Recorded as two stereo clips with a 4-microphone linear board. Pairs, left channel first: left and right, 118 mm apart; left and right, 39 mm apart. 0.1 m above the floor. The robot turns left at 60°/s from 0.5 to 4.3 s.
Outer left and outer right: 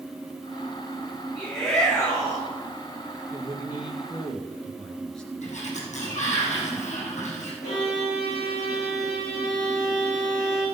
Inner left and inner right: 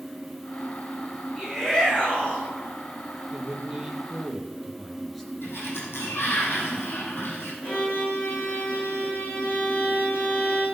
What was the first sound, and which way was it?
A shout, 165° right.